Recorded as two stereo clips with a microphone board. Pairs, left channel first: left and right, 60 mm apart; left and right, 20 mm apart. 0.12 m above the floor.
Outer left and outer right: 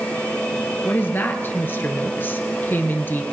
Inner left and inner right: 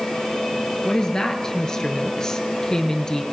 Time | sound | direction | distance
0.8 | a woman speaking | 35° left (ahead or behind) | 1.8 m